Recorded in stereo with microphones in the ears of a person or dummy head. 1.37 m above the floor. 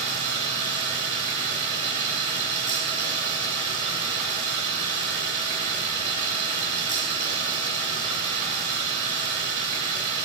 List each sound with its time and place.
0.0 s running water: 40° right (ahead or behind), 3 m